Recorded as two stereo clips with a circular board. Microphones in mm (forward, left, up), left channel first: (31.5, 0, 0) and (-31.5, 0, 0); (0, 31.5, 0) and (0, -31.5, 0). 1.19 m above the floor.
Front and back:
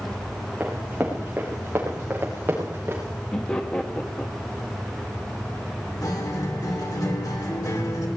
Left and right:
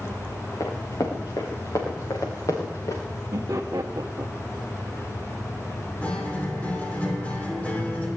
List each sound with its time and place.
0.6 s running footsteps: 115° left, 5 m; by 3.0 s 120° left, 7 m
3.3 s laughter: 65° right, 1.0 m
6.0 s a guitar: 20° left, 3 m